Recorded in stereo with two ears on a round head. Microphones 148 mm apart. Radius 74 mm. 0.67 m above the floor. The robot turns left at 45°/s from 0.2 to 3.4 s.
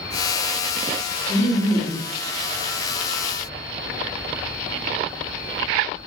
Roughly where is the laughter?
Left.